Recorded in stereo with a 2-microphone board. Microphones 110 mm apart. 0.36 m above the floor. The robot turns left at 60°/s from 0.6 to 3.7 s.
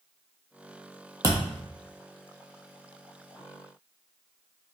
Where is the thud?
30° right (ahead or behind), 0.9 m; by 1.6 s 50° right (ahead or behind), 0.9 m.